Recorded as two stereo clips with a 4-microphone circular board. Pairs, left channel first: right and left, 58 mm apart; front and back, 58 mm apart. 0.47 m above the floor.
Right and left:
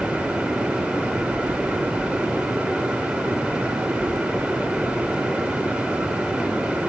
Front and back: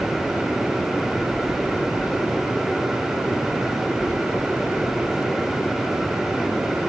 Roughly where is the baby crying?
No baby crying in this recording.